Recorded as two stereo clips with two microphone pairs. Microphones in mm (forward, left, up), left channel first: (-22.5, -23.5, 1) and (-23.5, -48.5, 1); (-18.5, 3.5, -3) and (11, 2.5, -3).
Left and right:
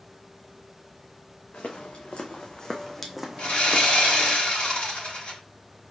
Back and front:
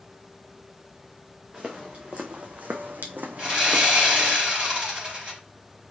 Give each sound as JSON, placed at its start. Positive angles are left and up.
{"t": 1.5, "sound": "footsteps", "azimuth_deg": 55, "distance_m": 1.4}
{"t": 3.4, "sound": "sawing", "azimuth_deg": 50, "distance_m": 3.0}